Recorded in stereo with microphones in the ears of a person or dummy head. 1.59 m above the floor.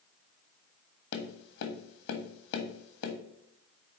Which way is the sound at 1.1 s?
55° left (ahead or behind).